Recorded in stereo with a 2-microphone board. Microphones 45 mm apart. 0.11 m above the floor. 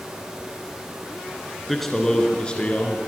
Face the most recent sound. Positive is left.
turn(degrees=35)  # may be behind; listen again after turning